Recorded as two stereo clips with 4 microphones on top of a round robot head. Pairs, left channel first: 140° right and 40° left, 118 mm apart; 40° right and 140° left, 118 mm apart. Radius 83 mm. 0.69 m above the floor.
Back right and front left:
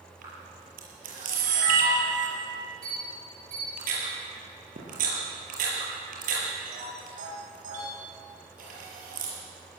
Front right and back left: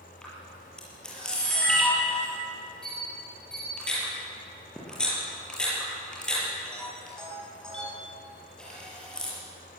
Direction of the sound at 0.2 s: 40° left.